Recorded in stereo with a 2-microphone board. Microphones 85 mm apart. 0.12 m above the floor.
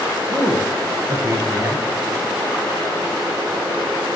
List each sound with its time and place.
0.3 s a man speaking: 35° right (ahead or behind), 1.3 m